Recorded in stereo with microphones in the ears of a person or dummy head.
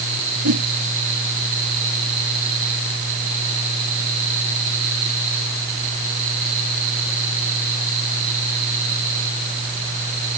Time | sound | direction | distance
0.4 | a whoosh | 75° right (ahead or behind) | ?